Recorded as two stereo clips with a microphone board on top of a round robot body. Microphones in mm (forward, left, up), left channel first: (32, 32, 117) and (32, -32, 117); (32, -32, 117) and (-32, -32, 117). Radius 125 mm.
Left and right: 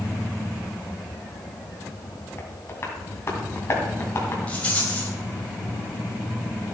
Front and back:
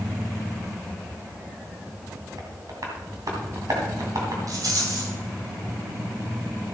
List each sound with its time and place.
2.4 s tapping: 145° left, 2.5 m
4.5 s a rattle: 160° left, 2.5 m